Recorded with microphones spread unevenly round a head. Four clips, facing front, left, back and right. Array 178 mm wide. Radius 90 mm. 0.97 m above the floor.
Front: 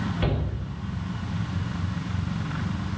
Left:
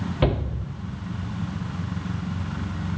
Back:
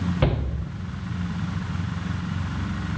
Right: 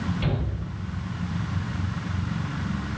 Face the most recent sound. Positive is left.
turn(degrees=120)